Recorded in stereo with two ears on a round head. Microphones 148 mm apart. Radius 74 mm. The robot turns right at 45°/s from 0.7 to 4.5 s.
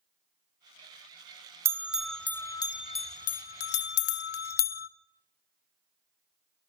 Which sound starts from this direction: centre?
A bell, at 1.6 s.